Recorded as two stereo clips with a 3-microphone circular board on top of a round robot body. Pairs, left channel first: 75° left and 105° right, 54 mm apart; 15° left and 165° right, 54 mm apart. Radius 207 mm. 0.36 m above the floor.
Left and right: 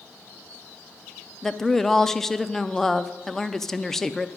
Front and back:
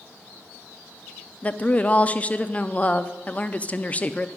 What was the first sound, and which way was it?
A woman speaking, straight ahead.